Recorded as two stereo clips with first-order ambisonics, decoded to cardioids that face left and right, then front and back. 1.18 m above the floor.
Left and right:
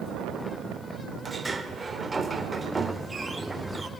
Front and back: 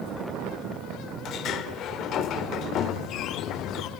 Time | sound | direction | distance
1.2 | a sliding door | 15° right | 1.0 m